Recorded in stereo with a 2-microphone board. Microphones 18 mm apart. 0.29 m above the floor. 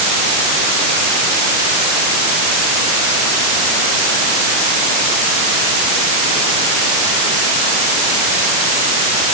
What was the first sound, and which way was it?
Only background noise.